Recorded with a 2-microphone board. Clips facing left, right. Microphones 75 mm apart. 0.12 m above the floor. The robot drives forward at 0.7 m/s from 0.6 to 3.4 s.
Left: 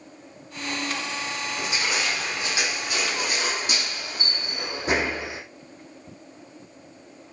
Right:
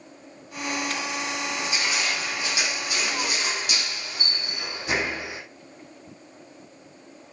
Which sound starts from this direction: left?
Crushing, at 1.6 s.